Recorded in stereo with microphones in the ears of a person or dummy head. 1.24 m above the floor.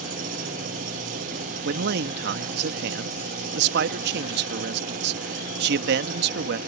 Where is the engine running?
50° right (ahead or behind).